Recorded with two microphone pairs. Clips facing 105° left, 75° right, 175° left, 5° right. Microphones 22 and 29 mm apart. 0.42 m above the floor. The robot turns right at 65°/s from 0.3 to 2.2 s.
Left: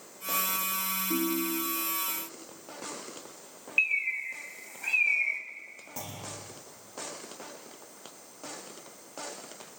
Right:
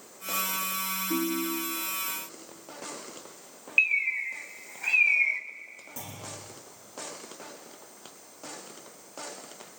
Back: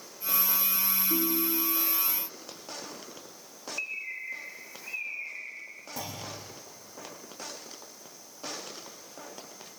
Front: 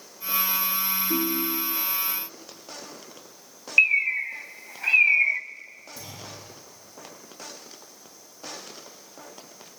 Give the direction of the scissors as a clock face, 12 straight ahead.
No scissors in this recording.